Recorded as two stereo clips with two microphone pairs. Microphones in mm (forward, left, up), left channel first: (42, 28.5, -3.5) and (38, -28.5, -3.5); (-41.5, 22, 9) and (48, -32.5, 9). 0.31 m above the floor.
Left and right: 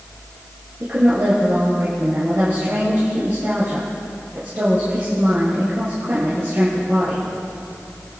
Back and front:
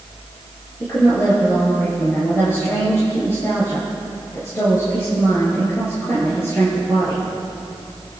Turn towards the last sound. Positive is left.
turn(degrees=-150)